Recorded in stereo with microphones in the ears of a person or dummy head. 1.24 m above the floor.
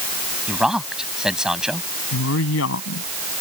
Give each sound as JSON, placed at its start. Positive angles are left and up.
{"t": 0.5, "sound": "a man speaking", "side_deg": 0}
{"t": 2.1, "sound": "a woman speaking", "side_deg": 80}